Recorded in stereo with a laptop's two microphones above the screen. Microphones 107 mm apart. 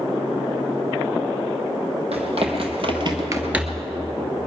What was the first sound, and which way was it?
Running footsteps, 70° right (ahead or behind).